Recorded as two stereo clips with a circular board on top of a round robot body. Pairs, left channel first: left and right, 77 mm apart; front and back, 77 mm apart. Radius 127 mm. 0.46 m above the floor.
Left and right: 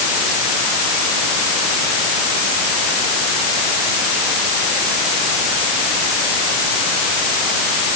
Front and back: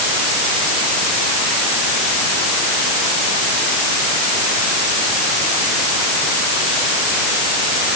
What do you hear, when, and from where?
Only background noise.